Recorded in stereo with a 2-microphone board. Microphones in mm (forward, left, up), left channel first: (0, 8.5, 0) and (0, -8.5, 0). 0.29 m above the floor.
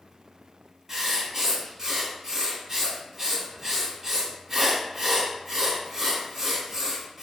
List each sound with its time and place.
0.9 s writing: 25° right (ahead or behind), 1.1 m